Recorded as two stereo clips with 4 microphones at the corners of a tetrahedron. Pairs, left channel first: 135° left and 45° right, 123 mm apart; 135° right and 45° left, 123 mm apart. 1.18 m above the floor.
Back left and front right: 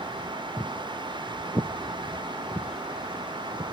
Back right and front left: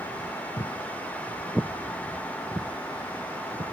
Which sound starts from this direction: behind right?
Footsteps, at 0.6 s.